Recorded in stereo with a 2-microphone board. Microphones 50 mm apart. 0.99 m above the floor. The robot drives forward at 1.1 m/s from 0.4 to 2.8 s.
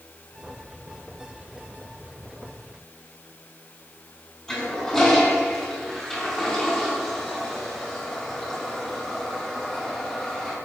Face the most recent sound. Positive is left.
turn(degrees=10)  # may be behind; listen again after turning